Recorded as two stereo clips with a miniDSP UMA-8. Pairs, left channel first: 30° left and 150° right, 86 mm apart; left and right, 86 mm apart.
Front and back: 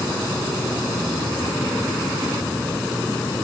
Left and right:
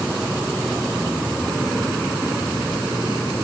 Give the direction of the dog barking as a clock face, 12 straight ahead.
No dog barking in this recording.